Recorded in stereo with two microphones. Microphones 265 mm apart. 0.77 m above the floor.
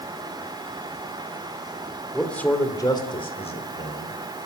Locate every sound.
2.1 s a man speaking: centre (ahead or behind), 2.5 m; by 4.2 s 30° left (ahead or behind), 4 m